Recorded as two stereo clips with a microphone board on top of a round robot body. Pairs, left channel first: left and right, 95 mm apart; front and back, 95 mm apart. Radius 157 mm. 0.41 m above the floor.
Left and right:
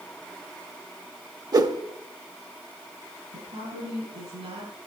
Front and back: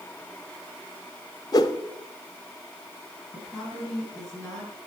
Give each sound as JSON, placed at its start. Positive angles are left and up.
{"t": 1.5, "sound": "a whoosh", "azimuth_deg": -45, "distance_m": 0.9}
{"t": 3.3, "sound": "a woman speaking", "azimuth_deg": -80, "distance_m": 7.0}